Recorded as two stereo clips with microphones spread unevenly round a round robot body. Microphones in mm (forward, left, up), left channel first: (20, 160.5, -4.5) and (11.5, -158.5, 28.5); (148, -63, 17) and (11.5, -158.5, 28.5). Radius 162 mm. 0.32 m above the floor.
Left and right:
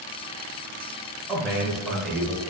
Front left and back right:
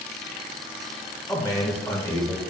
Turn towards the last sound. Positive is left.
turn(degrees=15)